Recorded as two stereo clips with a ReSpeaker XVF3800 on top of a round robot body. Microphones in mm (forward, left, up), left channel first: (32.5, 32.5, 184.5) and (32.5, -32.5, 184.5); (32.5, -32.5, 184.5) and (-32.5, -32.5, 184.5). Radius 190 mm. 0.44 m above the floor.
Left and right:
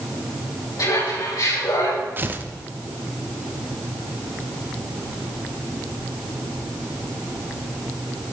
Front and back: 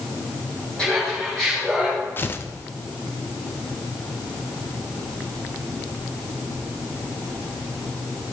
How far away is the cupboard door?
I don't hear a cupboard door.